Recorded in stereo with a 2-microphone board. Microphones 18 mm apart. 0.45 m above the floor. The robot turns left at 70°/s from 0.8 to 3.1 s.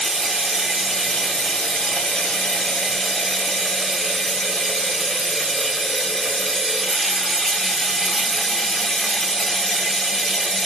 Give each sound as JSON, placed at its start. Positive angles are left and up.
{"t": 0.0, "sound": "running water", "azimuth_deg": 180, "distance_m": 1.3}